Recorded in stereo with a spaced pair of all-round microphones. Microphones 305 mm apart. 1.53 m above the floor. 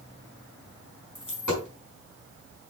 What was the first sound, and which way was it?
A dropped coin, 75° left (ahead or behind).